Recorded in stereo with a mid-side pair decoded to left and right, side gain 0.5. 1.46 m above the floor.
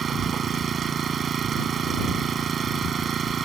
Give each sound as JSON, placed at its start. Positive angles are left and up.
{"t": 0.0, "sound": "an engine running", "azimuth_deg": -45}